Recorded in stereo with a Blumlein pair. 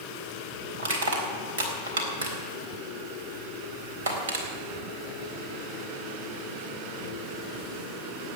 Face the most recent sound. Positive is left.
turn(degrees=-60)